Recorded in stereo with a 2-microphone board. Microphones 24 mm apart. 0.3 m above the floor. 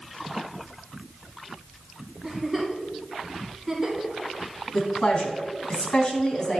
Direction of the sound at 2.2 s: 10° right (ahead or behind).